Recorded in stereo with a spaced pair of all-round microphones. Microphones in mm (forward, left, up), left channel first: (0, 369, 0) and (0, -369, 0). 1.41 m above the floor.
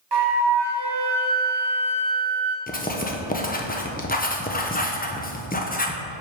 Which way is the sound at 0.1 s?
35° right (ahead or behind).